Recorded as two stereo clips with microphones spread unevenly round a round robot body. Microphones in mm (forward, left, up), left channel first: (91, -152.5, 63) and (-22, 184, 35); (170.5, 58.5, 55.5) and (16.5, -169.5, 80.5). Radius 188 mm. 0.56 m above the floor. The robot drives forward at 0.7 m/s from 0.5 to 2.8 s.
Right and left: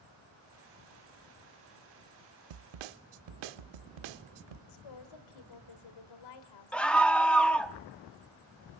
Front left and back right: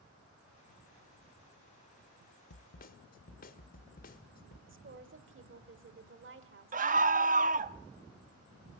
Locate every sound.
2.5 s a snare drum: 100° left, 0.6 m; by 4.6 s 120° left, 0.7 m
4.7 s a woman speaking: 80° right, 2.5 m
6.7 s a scream: 165° right, 0.6 m